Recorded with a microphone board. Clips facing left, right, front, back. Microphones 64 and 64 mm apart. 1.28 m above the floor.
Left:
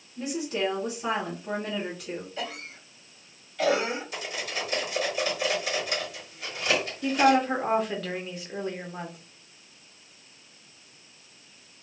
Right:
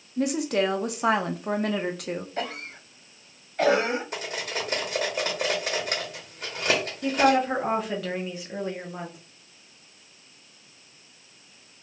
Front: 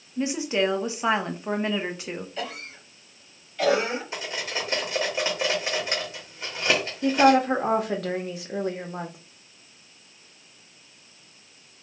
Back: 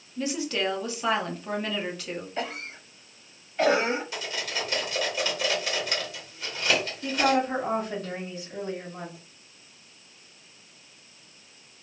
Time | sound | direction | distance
0.2 | a woman speaking | 65° right | 0.7 m
2.4 | a cough | 125° right | 1.1 m
4.1 | cutlery clinking | 60° right | 1.2 m
7.0 | a woman speaking | straight ahead | 0.8 m